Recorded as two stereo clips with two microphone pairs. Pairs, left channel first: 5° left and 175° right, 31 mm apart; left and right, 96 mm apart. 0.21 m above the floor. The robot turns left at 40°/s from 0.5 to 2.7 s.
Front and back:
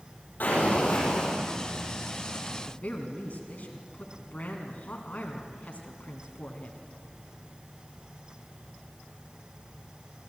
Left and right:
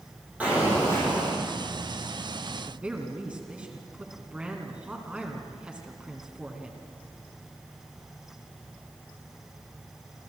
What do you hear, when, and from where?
0.4 s an explosion: 15° right, 8 m; by 1.4 s 50° right, 8 m
2.5 s a woman speaking: 10° right, 2 m; by 6.8 s 15° right, 2 m